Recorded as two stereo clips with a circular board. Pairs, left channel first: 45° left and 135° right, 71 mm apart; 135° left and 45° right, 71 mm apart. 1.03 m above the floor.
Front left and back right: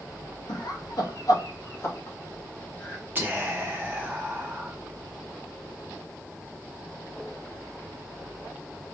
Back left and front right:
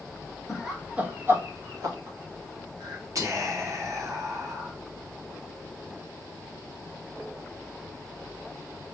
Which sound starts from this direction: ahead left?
Laughter, at 0.5 s.